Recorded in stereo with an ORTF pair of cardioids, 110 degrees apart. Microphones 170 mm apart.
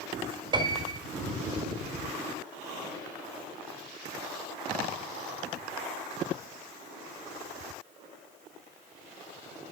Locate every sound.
0.5 s a piano: 25° right, 5.5 m